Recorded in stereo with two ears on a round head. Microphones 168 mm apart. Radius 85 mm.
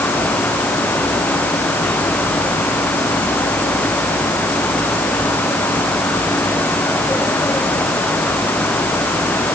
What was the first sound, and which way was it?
Only background noise.